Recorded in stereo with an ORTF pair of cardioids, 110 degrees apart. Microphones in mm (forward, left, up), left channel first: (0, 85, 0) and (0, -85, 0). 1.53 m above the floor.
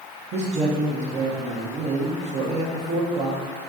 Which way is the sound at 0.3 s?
45° right.